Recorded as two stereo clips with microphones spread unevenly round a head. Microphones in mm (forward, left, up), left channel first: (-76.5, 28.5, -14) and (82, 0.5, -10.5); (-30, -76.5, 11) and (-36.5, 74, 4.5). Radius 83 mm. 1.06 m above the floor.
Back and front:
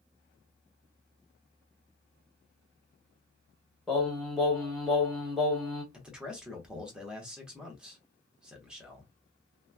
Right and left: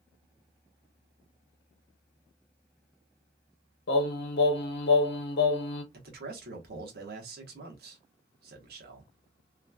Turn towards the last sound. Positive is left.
turn(degrees=75)